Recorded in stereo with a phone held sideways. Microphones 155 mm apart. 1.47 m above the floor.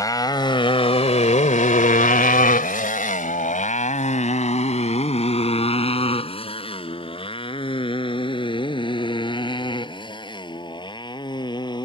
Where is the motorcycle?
25° left (ahead or behind); by 11.9 s 30° left (ahead or behind).